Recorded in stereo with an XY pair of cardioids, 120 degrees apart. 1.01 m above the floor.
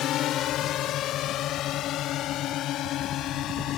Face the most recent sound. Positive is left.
turn(degrees=70)